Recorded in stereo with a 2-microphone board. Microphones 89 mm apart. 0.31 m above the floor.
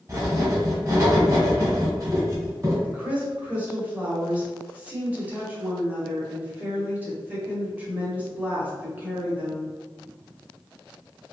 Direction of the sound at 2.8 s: 20° right (ahead or behind).